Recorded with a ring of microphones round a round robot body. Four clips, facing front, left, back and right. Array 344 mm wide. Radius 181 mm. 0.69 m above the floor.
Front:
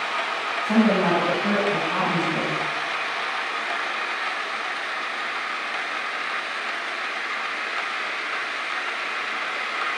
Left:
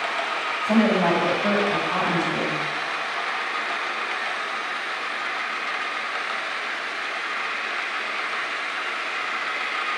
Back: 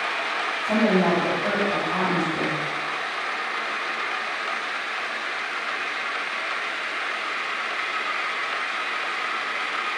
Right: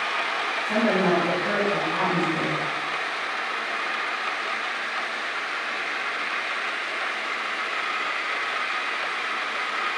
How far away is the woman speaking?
About 5.5 m.